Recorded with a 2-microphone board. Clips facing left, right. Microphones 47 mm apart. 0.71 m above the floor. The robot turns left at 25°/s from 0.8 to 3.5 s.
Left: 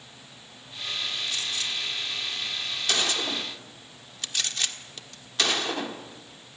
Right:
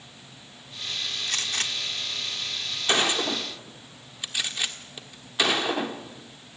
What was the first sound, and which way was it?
A gunshot, 60° right (ahead or behind).